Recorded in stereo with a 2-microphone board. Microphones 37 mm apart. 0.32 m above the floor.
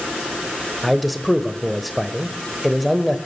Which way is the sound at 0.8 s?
5° right (ahead or behind).